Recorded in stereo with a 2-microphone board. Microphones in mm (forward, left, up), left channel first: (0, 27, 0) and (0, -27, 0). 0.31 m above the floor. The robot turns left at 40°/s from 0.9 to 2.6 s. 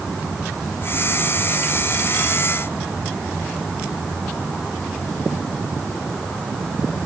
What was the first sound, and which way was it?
Only background noise.